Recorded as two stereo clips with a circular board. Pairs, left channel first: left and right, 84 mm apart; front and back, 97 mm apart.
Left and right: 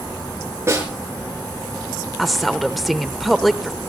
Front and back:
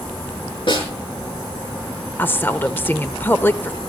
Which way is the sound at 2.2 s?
5° left.